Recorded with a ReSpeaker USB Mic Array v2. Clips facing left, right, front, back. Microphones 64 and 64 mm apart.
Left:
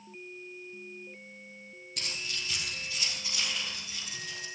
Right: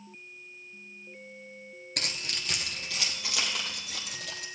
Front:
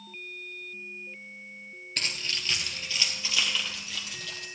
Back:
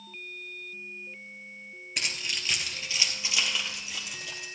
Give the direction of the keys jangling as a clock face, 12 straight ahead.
3 o'clock.